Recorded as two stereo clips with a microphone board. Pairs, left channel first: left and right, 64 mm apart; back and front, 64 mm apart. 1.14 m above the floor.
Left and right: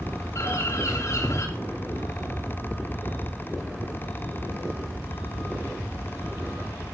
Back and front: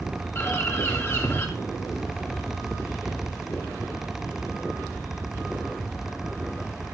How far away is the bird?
About 3 m.